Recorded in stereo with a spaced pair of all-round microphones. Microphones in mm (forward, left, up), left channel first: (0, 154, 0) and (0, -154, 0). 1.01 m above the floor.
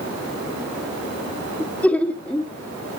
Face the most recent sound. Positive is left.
turn(degrees=5)  # may be behind; listen again after turning